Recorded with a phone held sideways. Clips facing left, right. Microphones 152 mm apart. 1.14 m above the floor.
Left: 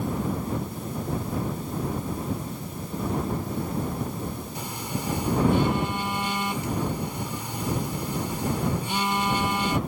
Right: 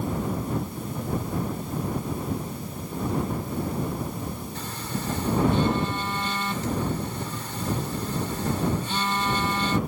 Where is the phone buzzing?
15° left (ahead or behind).